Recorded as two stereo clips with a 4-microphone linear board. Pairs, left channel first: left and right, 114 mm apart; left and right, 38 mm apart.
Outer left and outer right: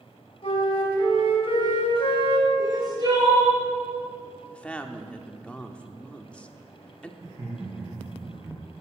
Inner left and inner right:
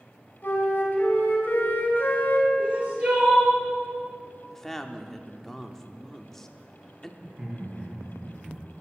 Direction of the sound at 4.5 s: 10° left (ahead or behind).